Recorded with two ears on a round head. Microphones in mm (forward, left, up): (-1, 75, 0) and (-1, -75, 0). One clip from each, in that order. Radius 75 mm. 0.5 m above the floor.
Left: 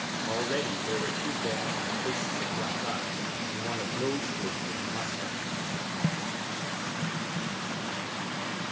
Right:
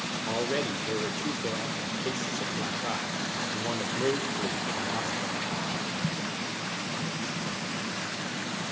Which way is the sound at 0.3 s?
15° right (ahead or behind).